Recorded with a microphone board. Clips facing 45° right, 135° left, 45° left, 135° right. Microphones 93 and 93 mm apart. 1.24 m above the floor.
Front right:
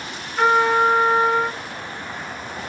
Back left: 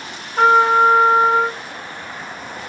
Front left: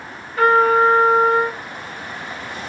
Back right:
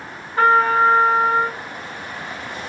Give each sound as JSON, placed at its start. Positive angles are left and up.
{"t": 0.4, "sound": "a trumpet", "azimuth_deg": 170, "distance_m": 1.5}